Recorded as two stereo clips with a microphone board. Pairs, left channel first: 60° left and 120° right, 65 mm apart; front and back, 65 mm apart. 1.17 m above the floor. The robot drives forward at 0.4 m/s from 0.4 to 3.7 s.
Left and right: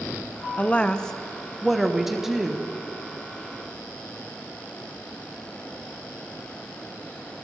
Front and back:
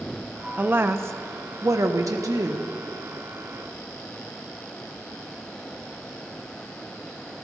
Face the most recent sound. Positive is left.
turn(degrees=165)